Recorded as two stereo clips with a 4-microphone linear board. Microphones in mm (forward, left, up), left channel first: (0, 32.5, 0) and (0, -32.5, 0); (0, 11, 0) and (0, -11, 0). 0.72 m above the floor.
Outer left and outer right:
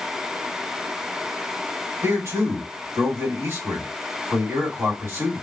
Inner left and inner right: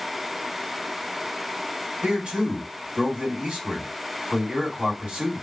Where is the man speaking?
50° right (ahead or behind), 2.0 m.